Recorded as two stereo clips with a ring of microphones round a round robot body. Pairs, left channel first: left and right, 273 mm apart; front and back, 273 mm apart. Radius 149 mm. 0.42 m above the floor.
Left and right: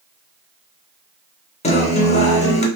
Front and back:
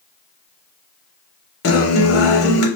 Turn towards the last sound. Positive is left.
turn(degrees=25)